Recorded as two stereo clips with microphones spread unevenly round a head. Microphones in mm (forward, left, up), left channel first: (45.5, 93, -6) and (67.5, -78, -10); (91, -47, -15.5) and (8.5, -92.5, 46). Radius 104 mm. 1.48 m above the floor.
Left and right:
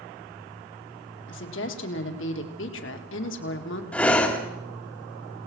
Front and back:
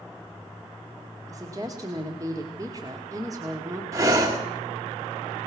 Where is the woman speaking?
135° left, 2 m.